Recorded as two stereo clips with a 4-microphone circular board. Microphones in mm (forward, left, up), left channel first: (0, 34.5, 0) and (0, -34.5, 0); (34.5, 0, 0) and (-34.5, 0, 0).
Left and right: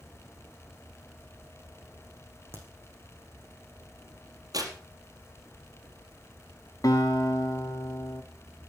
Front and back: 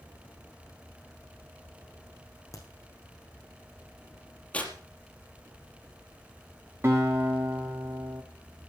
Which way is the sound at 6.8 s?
125° left.